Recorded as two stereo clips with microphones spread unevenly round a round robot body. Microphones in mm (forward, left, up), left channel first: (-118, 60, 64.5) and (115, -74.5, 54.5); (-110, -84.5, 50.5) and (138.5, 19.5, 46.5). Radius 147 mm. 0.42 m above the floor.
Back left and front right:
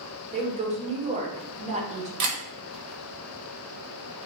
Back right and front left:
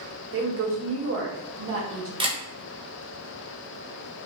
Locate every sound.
0.3 s a woman speaking: 25° left, 1.1 m
2.2 s a camera shutter: 50° right, 1.4 m